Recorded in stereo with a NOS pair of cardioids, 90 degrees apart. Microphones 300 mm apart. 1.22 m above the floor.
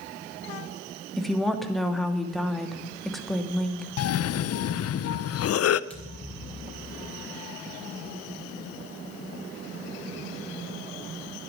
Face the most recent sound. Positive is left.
turn(degrees=5)